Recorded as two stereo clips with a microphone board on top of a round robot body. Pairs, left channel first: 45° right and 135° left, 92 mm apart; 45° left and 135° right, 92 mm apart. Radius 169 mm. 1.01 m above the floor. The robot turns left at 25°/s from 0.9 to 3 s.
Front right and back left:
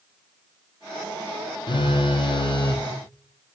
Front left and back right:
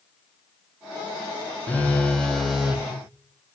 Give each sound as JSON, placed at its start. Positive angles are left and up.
{"t": 1.7, "sound": "a phone buzzing", "azimuth_deg": -25, "distance_m": 1.4}